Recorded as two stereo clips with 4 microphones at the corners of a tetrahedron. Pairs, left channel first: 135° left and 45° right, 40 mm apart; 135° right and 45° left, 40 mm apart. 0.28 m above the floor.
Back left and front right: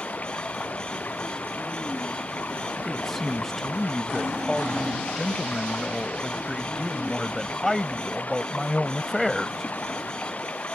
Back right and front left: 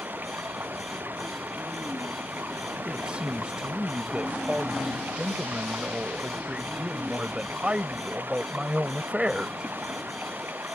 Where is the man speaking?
50° left.